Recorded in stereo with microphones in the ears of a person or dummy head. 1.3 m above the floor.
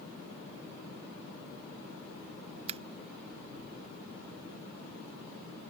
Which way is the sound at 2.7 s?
30° right (ahead or behind).